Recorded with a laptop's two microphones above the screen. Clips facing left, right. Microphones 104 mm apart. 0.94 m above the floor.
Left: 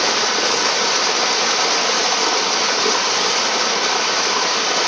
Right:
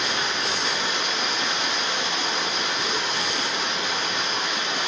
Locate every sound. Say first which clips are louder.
0.0 s running water: left 8 dB; 70° left (ahead or behind), 1.0 m